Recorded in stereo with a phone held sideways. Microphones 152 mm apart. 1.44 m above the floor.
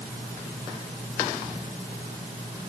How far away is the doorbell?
I don't hear a doorbell.